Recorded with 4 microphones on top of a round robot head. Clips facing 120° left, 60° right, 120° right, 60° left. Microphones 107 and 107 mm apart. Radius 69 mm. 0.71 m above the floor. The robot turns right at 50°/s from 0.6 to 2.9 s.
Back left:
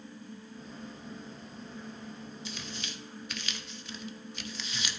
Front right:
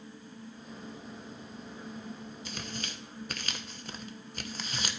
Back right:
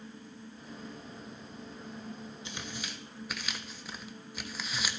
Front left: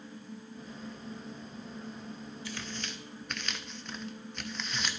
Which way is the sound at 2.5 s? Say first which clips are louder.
Front right 3 dB, front left 2 dB; 65° right.